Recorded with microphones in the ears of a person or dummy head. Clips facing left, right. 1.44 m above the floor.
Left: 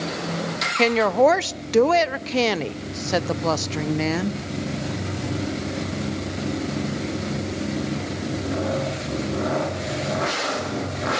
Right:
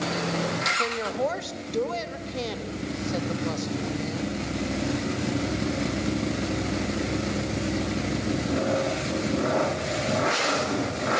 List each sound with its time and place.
0.8 s a woman speaking: 80° left, 0.7 m